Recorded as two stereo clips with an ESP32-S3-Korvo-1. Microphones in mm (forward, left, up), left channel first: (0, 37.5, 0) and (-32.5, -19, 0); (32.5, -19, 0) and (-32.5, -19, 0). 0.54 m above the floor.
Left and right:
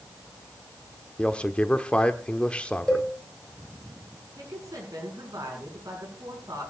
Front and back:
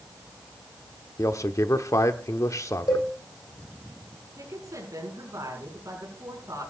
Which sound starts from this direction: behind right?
A woman speaking, at 4.4 s.